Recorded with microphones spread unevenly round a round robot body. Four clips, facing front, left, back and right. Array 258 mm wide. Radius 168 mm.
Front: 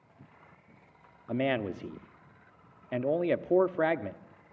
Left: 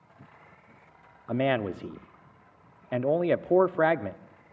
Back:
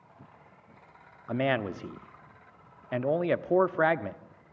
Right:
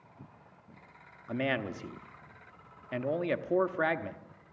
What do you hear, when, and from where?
1.3 s a man speaking: 60° left, 0.7 m